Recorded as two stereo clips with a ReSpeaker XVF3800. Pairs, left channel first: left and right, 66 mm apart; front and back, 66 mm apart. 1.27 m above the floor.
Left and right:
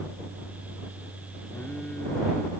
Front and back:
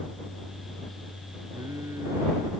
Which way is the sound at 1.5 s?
150° left.